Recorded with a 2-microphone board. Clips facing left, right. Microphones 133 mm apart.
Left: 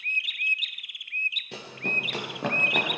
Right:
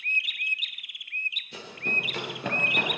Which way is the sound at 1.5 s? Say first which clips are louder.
Left 1 dB; 70° left (ahead or behind).